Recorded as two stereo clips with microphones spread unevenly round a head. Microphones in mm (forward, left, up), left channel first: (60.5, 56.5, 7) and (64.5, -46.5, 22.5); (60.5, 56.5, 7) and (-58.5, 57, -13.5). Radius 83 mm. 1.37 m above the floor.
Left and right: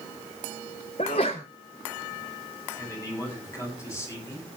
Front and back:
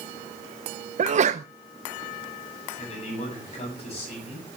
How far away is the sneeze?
About 0.7 m.